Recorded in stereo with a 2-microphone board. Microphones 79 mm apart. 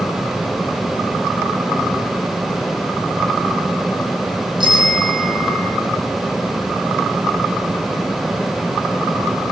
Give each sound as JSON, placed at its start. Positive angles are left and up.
{"t": 4.6, "sound": "a bicycle bell", "side_deg": -80, "distance_m": 5.5}